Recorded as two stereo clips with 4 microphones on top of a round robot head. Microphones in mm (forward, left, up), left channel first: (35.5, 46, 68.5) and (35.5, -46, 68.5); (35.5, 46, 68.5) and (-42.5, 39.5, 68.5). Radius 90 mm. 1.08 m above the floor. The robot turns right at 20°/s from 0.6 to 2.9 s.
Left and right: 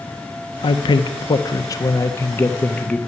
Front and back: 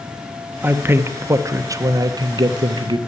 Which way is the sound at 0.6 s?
120° left.